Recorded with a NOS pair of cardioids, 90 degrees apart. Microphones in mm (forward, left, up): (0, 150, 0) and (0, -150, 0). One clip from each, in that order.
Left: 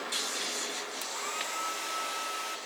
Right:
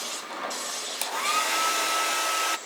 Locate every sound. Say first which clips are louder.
1.0 s a hair dryer: right 12 dB; 65° right, 1.2 m